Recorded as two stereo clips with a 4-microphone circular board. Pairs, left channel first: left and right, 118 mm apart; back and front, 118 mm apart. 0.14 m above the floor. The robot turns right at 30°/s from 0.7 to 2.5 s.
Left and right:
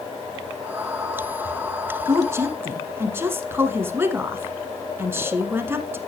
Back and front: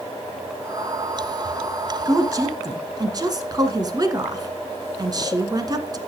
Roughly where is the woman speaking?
Ahead right.